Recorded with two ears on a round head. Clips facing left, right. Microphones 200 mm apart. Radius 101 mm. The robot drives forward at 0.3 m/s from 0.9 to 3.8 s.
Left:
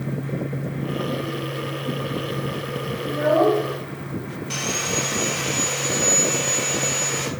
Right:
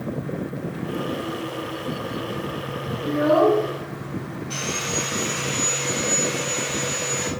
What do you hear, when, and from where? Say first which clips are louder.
3.0 s a child speaking: right 1 dB; 55° right (ahead or behind), 0.7 m; by 3.6 s 45° right (ahead or behind), 0.8 m
4.5 s sawing: left 2 dB; 65° left (ahead or behind), 0.8 m